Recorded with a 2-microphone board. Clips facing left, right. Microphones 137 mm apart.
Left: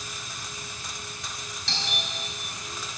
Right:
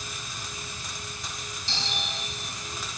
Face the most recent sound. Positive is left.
turn(degrees=70)  # may be behind; listen again after turning